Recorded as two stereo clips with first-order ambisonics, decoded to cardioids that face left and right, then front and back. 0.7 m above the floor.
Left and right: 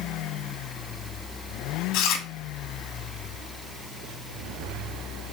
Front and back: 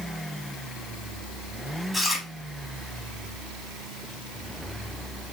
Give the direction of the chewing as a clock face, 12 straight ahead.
9 o'clock.